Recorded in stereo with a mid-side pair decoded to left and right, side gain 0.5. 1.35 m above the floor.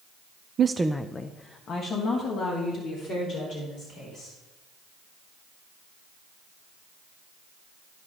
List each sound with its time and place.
0.6 s a woman speaking: 50° right, 0.5 m; by 4.4 s 65° left, 5 m